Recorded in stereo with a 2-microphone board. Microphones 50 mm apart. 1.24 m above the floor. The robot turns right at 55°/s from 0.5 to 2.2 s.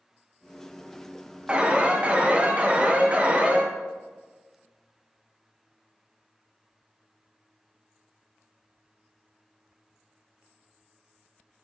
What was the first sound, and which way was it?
An alarm, 20° right (ahead or behind).